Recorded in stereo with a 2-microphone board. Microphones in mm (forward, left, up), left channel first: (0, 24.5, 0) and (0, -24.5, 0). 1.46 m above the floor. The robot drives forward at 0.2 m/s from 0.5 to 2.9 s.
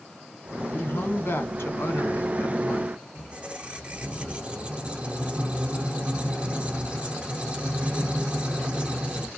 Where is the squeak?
25° right (ahead or behind), 0.7 m.